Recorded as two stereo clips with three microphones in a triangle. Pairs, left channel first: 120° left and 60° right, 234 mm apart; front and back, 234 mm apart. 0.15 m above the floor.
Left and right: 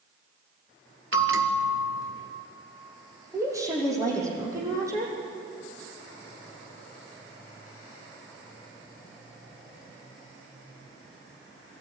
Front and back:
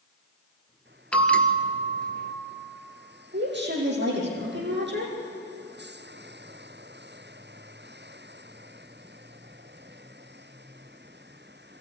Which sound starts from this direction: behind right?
A woman speaking, at 3.3 s.